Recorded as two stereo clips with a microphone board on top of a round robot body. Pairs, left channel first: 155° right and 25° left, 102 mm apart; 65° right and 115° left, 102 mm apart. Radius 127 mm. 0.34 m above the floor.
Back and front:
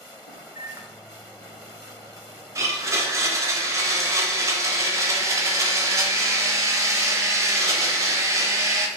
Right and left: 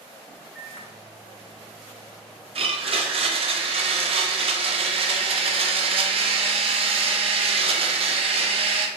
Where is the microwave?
15° left, 1.0 m.